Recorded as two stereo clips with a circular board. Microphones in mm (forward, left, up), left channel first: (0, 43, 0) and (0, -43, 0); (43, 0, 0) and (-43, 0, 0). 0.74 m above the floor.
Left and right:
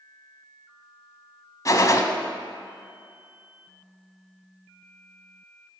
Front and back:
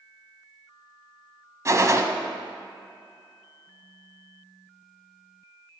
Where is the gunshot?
130° left, 1.0 m.